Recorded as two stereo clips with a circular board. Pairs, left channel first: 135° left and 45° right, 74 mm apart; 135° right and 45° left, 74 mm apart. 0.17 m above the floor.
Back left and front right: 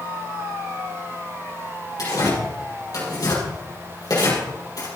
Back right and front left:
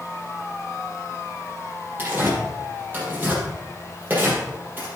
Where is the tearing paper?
105° left, 5 m.